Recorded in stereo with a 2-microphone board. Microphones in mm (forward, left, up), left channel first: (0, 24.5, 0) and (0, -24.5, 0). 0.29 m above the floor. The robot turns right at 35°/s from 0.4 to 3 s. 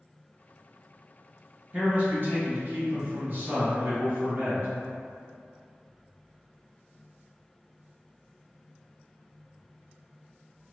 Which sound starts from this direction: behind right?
A man speaking, at 1.7 s.